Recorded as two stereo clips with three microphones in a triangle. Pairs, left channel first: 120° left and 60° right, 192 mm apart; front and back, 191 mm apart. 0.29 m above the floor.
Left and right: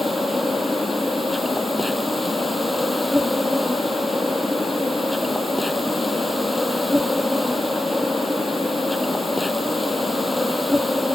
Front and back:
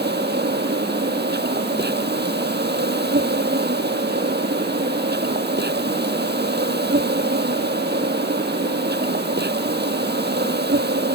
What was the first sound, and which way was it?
An insect, 150° right.